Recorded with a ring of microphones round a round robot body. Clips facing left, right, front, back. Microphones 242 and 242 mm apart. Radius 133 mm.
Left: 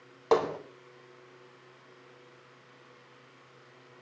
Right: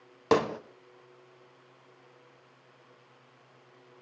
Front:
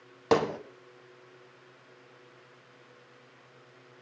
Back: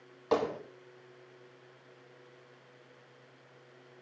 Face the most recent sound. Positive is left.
turn(degrees=-40)